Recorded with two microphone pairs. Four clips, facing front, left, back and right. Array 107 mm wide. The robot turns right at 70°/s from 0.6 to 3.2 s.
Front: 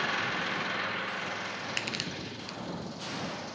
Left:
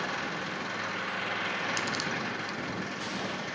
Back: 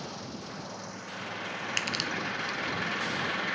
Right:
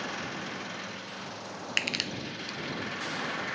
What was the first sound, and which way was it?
An engine running, 25° left.